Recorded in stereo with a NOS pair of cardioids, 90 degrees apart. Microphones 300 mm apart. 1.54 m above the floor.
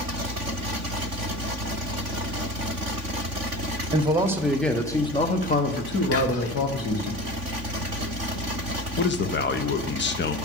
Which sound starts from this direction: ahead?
A man speaking, at 3.9 s.